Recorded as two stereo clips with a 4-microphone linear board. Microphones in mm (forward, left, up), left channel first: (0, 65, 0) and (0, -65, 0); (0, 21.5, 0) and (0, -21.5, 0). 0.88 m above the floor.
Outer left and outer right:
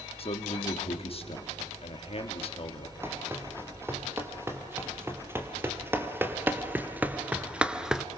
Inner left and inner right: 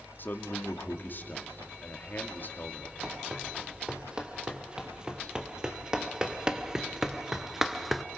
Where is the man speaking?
50° left (ahead or behind), 2.0 m.